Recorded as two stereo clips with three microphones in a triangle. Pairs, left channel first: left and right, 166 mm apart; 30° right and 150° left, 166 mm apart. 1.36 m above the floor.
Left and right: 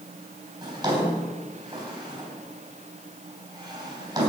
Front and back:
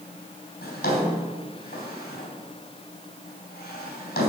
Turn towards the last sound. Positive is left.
turn(degrees=-25)